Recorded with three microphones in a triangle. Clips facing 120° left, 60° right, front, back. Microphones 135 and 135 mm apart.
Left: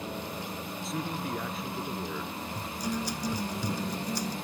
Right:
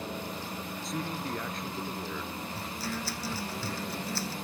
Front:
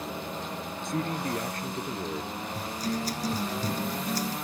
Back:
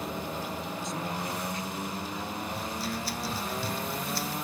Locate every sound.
0.8 s a man speaking: 30° left; by 2.4 s 40° left
2.5 s a guitar: 45° left